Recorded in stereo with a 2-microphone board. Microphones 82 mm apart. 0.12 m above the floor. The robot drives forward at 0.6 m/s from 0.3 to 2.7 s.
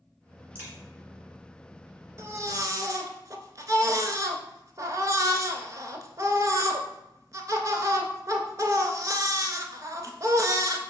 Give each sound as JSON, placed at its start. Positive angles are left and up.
{"t": 0.6, "sound": "a crack", "side_deg": -25, "distance_m": 1.5}
{"t": 2.2, "sound": "a baby crying", "side_deg": -35, "distance_m": 0.6}